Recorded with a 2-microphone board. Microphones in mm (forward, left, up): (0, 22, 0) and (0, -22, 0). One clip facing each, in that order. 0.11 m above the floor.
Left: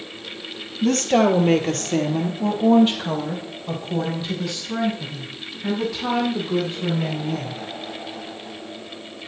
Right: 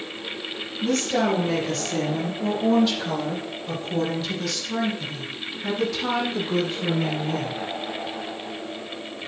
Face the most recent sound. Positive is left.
turn(degrees=5)  # may be behind; listen again after turning